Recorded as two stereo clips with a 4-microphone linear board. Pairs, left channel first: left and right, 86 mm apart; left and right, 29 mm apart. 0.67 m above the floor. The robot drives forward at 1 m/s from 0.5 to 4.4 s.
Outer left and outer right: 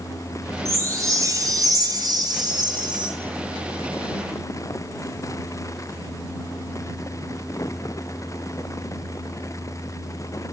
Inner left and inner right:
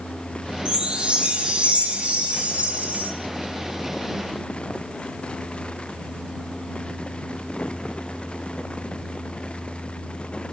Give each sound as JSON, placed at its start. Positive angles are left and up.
{"t": 0.7, "sound": "a chime", "side_deg": -35, "distance_m": 5.0}